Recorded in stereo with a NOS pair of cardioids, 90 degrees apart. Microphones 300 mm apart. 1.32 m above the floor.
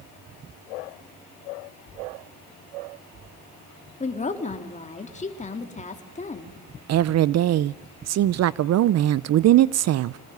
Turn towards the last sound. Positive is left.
turn(degrees=-60)